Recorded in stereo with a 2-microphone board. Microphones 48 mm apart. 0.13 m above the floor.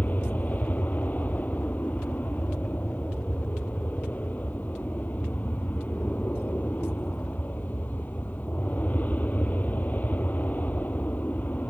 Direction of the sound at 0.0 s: 35° left (ahead or behind).